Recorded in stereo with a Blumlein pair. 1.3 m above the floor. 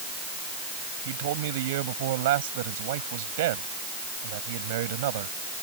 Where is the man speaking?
55° right.